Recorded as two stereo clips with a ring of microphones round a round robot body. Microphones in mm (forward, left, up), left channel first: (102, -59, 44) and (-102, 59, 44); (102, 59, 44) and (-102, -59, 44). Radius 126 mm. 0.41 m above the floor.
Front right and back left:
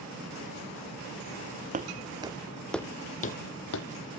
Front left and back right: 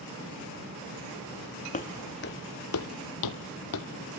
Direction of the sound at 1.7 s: 90° left.